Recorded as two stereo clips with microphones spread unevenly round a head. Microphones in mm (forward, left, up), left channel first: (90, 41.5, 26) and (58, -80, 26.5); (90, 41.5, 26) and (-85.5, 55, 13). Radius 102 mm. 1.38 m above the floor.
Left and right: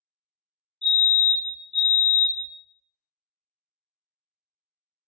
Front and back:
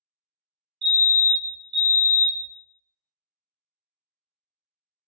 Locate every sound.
0.8 s a fire alarm: 150° left, 1.4 m